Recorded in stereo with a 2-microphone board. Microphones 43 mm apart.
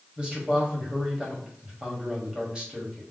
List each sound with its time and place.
0.2 s a man speaking: 20° right (ahead or behind), 1.4 m